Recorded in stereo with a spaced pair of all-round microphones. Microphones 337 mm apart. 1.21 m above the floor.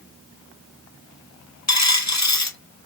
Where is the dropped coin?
55° left (ahead or behind), 0.8 m.